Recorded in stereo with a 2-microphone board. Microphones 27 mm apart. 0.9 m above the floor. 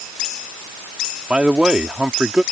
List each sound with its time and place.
1.3 s a man speaking: 40° right (ahead or behind)